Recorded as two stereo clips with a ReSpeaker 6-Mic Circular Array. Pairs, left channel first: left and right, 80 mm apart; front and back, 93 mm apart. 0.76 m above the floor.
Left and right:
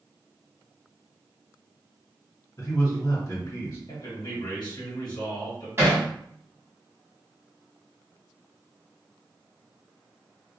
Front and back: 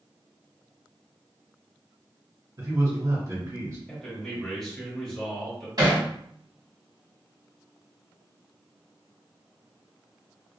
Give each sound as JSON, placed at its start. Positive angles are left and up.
{"t": 2.6, "sound": "a man speaking", "azimuth_deg": 130, "distance_m": 1.7}
{"t": 3.9, "sound": "a man speaking", "azimuth_deg": 85, "distance_m": 1.2}
{"t": 5.8, "sound": "hammering", "azimuth_deg": -145, "distance_m": 1.3}